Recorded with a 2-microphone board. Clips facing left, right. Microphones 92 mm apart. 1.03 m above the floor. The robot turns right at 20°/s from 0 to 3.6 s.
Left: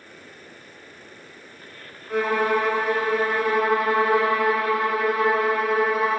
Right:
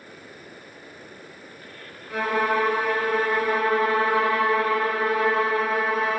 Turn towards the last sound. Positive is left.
turn(degrees=165)